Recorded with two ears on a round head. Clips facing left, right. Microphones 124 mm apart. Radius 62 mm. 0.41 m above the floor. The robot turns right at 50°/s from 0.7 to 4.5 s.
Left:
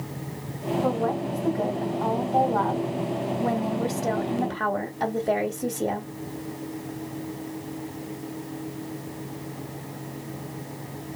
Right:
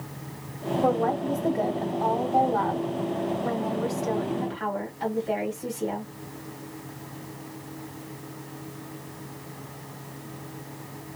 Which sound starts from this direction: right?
A woman speaking, at 0.8 s.